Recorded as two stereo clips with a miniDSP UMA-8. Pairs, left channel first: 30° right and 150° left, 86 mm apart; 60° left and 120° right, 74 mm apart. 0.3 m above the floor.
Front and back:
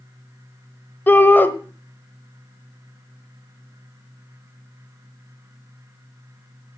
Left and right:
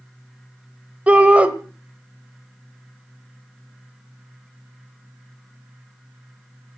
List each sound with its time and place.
1.1 s a shout: 70° right, 1.2 m